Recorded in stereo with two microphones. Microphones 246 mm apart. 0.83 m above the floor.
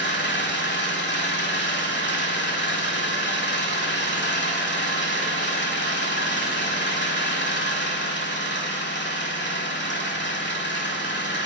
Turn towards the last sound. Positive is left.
turn(degrees=45)  # may be behind; listen again after turning